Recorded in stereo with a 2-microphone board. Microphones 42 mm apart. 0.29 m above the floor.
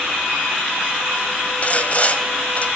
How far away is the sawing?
About 1.7 m.